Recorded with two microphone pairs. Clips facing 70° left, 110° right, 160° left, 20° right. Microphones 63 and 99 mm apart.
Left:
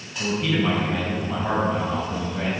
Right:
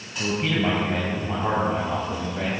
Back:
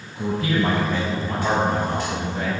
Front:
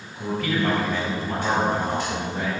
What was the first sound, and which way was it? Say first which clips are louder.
A man speaking: left 1 dB, back 2 dB; 145° right.